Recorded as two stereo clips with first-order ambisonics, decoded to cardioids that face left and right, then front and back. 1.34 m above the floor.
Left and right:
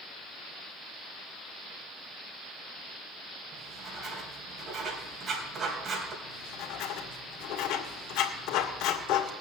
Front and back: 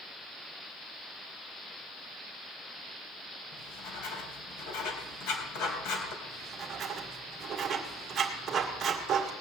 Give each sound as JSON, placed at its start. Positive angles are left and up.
{"t": 3.5, "sound": "writing", "azimuth_deg": -25, "distance_m": 3.0}
{"t": 6.2, "sound": "writing", "azimuth_deg": 115, "distance_m": 1.8}